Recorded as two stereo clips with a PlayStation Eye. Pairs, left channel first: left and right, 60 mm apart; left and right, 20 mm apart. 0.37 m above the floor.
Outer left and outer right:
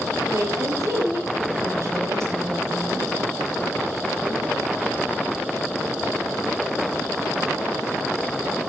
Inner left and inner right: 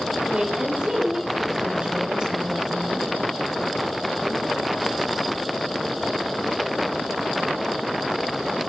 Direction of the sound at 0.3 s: 60° right (ahead or behind).